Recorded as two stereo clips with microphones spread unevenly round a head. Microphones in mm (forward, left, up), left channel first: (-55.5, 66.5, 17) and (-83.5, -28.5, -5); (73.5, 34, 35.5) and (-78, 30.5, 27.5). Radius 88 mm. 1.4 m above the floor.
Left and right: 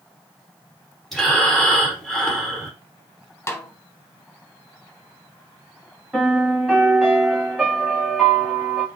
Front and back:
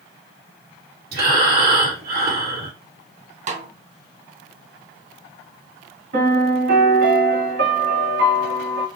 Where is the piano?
165° left, 3 m.